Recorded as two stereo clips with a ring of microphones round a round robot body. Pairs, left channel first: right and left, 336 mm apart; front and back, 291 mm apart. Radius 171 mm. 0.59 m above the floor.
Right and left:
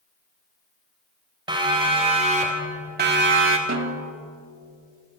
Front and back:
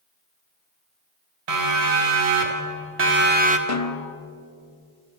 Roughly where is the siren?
Behind.